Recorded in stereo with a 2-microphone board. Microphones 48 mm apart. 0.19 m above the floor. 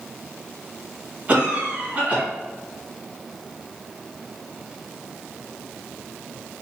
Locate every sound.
1.3 s a cough: 30° right (ahead or behind), 1.8 m